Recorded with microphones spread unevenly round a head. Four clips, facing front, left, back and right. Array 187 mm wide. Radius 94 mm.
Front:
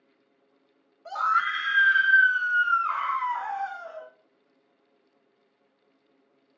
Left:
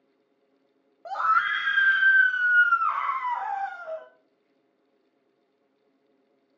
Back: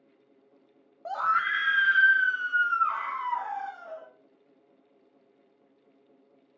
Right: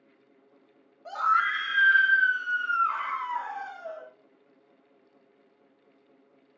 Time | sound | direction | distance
1.1 | a scream | 155° left | 0.7 m